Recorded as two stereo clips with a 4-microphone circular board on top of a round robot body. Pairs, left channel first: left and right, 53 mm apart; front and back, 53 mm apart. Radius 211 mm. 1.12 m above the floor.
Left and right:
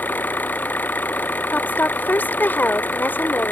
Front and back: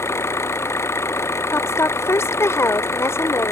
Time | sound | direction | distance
0.0 | an engine running | 35° left | ?
1.5 | a woman speaking | 35° left | ?